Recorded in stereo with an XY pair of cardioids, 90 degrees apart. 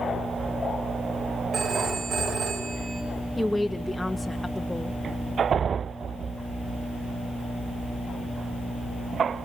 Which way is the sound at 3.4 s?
10° left.